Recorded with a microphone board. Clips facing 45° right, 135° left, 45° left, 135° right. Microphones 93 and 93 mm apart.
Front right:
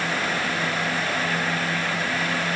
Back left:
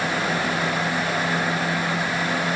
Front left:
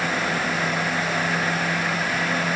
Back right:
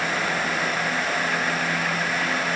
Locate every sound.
Only background noise.